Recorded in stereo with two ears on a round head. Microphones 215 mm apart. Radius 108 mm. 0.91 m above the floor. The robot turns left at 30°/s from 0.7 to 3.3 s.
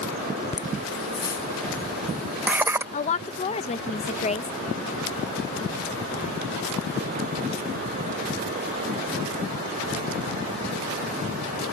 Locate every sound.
0.5 s laughter: 25° left (ahead or behind); by 2.8 s 10° right (ahead or behind)
2.9 s a woman speaking: 30° left (ahead or behind); by 4.5 s 25° left (ahead or behind)